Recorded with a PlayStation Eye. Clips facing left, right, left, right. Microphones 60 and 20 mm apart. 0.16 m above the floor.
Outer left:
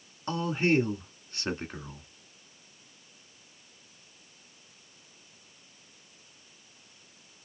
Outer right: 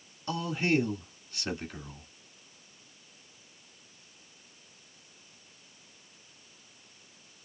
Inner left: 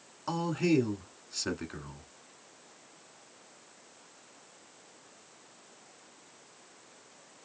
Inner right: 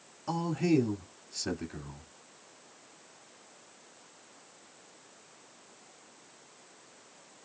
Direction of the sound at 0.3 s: 30° left (ahead or behind).